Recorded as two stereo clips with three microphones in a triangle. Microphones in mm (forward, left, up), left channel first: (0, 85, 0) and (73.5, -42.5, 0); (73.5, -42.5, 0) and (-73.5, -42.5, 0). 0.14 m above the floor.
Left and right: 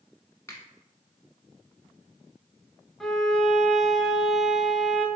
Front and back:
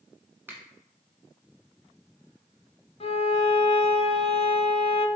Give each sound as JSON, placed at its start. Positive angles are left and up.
{"t": 0.5, "sound": "a finger snap", "azimuth_deg": 140, "distance_m": 0.9}
{"t": 3.0, "sound": "a violin", "azimuth_deg": 35, "distance_m": 0.5}